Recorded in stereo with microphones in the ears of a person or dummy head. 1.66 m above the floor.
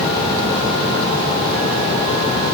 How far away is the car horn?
No car horn in this recording.